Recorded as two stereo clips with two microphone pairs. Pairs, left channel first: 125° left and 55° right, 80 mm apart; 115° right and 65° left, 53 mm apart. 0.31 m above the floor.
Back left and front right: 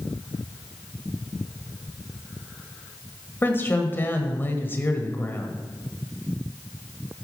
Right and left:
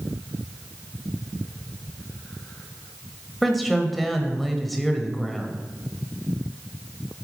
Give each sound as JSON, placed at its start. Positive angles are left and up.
{"t": 3.4, "sound": "a woman speaking", "azimuth_deg": 155, "distance_m": 1.3}